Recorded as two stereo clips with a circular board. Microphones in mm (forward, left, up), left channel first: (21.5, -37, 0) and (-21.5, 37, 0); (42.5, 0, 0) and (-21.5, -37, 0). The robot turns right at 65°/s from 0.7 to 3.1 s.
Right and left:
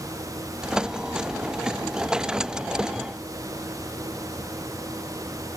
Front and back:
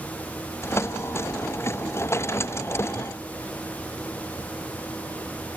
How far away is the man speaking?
No man speaking in this recording.